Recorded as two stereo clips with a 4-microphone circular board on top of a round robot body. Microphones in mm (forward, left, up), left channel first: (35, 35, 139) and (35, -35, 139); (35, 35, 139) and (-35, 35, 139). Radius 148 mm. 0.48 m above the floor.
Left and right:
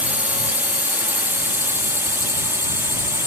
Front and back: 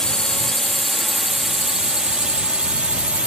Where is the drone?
70° right; by 3.3 s 120° right.